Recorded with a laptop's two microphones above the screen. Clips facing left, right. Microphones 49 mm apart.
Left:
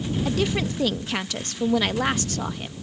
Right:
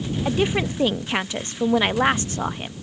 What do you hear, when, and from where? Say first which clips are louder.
0.2 s a woman speaking: right 4 dB; 25° right (ahead or behind)